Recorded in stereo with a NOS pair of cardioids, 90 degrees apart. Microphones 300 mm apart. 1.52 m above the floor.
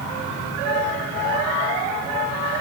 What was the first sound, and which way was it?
Only background noise.